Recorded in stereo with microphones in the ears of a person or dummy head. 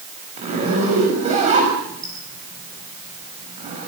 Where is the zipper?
35° right (ahead or behind), 6.5 m.